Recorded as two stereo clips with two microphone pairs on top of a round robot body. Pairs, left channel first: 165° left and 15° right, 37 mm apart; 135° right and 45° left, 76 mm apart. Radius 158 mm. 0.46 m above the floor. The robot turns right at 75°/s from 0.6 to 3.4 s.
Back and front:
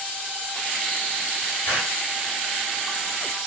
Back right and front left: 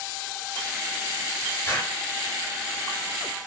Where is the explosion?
155° left, 1.5 m; by 2.0 s 175° left, 1.5 m.